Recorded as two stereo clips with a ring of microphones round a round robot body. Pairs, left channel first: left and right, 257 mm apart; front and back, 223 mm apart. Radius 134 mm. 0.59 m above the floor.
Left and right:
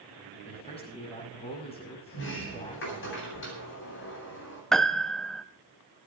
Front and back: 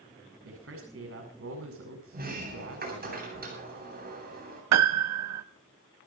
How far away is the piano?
About 0.7 m.